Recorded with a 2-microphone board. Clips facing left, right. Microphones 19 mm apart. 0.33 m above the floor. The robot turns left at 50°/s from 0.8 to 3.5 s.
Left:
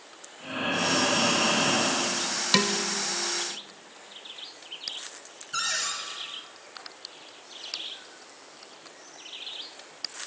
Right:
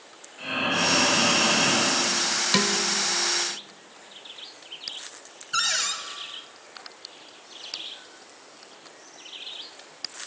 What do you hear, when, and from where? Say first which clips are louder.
0.4 s breathing: right 3 dB; 120° right, 6.5 m; by 2.1 s 175° left, 6.5 m
2.5 s dishes clattering: left 1 dB; 5° left (ahead or behind), 0.7 m; by 2.8 s centre (ahead or behind), 0.7 m
5.5 s a cupboard door: right 4 dB; 35° right (ahead or behind), 1.2 m